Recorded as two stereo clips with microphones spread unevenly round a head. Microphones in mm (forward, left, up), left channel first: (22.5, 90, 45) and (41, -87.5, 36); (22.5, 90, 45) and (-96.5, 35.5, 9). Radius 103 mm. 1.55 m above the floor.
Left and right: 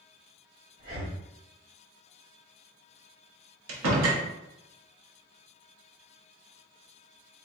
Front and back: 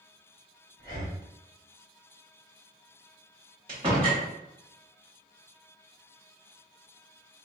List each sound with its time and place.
0.8 s breathing: 40° right, 1.8 m
3.7 s a door slam: 85° right, 0.7 m